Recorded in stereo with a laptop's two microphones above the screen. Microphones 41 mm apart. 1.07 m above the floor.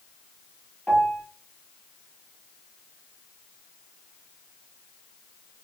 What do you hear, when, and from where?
0.9 s a piano: 15° left (ahead or behind), 1.8 m